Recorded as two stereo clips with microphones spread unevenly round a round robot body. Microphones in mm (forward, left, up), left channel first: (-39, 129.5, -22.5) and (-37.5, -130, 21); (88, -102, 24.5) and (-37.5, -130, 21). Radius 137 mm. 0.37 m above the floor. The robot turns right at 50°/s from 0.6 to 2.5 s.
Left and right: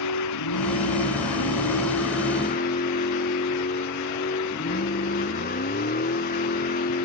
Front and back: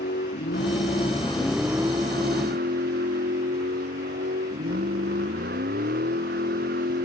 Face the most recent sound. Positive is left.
turn(degrees=150)